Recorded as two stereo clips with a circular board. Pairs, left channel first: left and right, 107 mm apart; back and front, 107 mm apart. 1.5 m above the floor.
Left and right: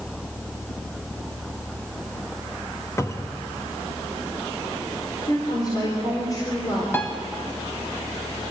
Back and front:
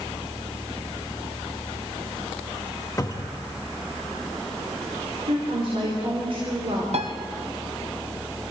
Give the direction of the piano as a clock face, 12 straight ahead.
11 o'clock.